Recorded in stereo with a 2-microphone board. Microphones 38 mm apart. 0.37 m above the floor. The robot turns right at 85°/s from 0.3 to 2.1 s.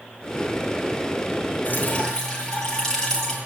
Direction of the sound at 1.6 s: 125° left.